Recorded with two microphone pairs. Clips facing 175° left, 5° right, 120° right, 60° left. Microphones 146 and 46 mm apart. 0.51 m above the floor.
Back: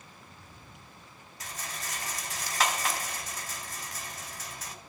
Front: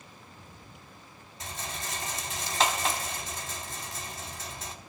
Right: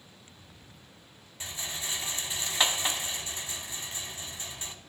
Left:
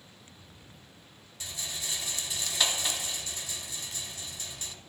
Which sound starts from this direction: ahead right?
A rattle, at 1.4 s.